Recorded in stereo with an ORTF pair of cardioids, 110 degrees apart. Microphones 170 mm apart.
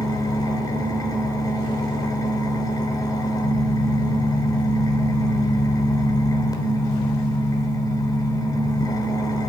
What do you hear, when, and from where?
0.0 s an engine running: 20° left, 3 m